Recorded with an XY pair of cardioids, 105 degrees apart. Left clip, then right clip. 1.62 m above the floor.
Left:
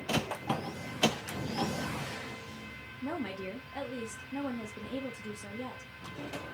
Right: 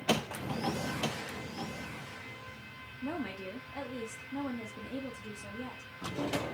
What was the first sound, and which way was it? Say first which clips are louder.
A woman speaking: left 1 dB; 15° left.